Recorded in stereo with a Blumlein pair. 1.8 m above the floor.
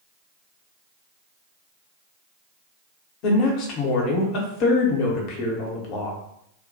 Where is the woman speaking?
40° left, 0.8 m.